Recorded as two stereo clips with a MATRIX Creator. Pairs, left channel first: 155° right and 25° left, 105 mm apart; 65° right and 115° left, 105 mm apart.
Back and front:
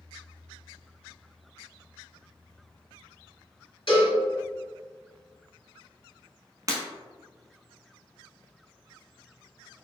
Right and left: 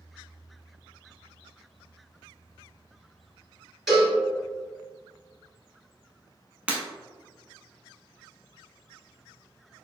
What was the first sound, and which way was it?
A cowbell, 160° right.